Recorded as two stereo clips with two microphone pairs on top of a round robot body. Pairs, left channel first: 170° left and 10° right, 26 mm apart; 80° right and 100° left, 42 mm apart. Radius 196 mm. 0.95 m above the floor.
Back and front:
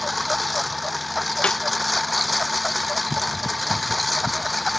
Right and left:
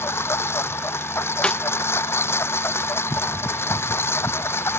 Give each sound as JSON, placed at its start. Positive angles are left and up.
{"t": 0.0, "sound": "a lawn mower", "azimuth_deg": -100}
{"t": 1.4, "sound": "a snare drum", "azimuth_deg": -150}